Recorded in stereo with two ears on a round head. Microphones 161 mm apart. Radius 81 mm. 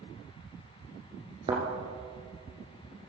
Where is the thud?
25° right (ahead or behind), 2.5 m.